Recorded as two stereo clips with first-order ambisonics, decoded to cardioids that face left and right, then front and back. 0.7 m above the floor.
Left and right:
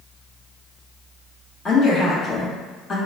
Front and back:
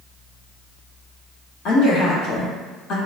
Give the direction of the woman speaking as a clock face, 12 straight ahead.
11 o'clock.